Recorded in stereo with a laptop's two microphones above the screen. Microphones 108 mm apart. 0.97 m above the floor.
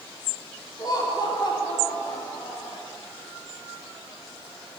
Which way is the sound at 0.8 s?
35° left (ahead or behind).